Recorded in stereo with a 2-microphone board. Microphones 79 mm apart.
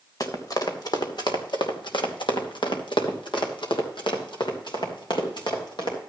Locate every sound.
0.2 s running footsteps: 50° left (ahead or behind), 2.5 m; by 6.0 s 65° left (ahead or behind), 4.5 m